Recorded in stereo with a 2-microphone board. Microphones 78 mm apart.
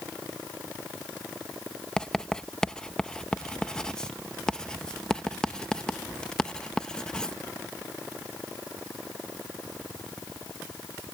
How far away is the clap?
No clap in this recording.